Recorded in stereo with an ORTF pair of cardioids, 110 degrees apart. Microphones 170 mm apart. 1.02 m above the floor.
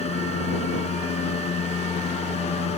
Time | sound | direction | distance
0.0 | a fan | 40° left | ?